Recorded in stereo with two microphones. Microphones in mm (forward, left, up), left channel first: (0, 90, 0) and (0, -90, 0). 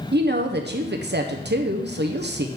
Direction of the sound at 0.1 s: 70° right (ahead or behind).